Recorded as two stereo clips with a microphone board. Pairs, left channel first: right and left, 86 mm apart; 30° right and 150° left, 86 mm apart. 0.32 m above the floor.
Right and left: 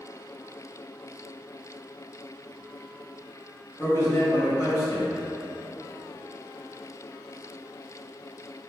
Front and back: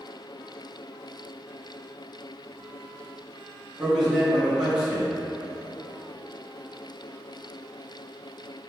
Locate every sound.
3.8 s a man speaking: 130° right, 1.9 m